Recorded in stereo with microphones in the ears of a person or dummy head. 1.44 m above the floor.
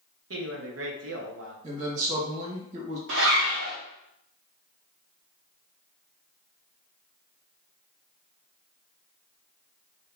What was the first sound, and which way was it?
A man speaking, 70° right (ahead or behind).